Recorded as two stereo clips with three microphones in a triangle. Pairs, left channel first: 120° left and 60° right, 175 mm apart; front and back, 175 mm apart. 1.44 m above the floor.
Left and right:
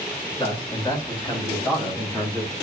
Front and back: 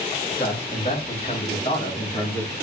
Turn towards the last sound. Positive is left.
turn(degrees=55)